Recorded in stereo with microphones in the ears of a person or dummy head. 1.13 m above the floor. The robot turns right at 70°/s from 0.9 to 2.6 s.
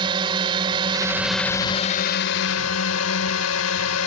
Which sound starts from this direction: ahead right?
A drone, at 0.0 s.